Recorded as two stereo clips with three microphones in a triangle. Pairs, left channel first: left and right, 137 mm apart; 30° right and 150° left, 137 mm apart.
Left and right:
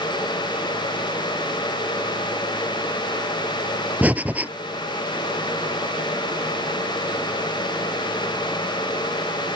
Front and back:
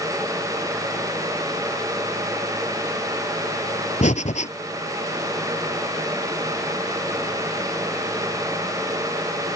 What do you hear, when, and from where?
4.0 s breathing: 10° right